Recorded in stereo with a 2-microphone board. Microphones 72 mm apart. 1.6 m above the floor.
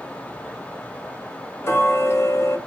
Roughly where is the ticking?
Left.